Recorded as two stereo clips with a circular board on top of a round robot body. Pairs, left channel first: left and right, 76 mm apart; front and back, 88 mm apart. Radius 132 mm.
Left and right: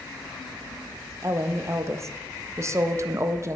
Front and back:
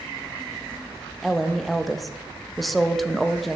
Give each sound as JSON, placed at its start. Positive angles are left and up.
{"t": 1.2, "sound": "a woman speaking", "azimuth_deg": -90, "distance_m": 0.6}